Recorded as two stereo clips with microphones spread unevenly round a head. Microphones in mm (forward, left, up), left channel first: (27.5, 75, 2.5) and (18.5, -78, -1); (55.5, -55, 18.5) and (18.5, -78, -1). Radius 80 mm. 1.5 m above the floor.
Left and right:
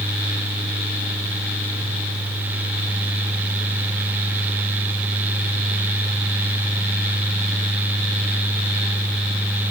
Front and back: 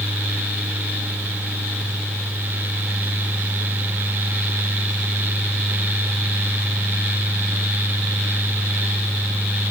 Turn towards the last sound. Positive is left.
No sound to turn to.